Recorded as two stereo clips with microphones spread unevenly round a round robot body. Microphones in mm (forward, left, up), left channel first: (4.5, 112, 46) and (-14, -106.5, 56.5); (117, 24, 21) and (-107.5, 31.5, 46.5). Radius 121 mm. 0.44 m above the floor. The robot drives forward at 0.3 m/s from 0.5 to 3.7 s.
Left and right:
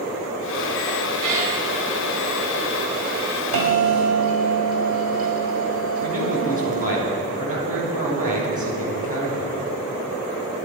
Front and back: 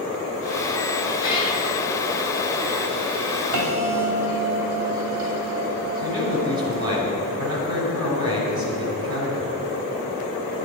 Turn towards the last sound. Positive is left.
turn(degrees=-150)